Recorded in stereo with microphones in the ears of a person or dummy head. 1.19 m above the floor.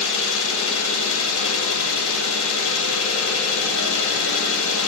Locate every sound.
0.0 s an engine running: 75° left (ahead or behind), 0.9 m